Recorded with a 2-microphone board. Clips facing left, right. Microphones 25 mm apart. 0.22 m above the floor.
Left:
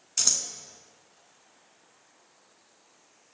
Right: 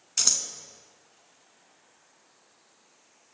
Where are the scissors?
10° right (ahead or behind), 0.8 m.